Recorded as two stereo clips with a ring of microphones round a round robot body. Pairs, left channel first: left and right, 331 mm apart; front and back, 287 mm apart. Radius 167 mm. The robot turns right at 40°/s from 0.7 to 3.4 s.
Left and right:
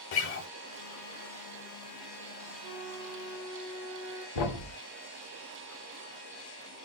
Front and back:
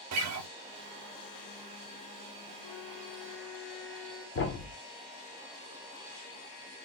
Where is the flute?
40° right, 3 m; by 4.2 s 10° right, 3 m.